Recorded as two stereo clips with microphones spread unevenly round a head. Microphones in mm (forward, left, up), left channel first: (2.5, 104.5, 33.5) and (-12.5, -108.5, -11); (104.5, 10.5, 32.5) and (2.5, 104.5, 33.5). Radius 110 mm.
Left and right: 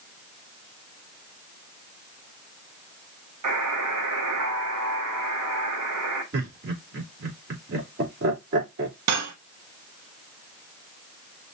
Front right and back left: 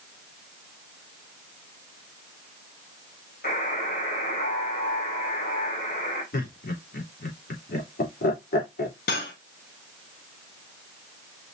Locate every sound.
3.4 s a buzzer: 90° right, 2.5 m
6.3 s laughter: 50° right, 3 m
9.1 s cutlery clinking: 75° right, 1.1 m